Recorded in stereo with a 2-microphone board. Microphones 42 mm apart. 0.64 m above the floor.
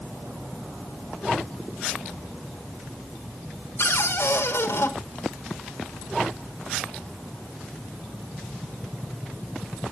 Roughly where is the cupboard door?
Left.